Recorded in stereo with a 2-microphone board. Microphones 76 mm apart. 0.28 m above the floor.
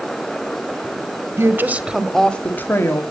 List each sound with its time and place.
1.4 s a woman speaking: 35° right (ahead or behind), 1.3 m; by 3.0 s 40° left (ahead or behind), 1.7 m